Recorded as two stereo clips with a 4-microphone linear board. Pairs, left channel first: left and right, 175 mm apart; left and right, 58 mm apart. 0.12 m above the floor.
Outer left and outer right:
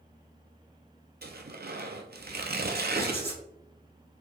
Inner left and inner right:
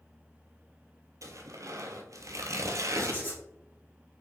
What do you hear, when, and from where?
1.2 s tearing paper: 65° right (ahead or behind), 0.6 m
3.0 s writing: 30° right (ahead or behind), 2.5 m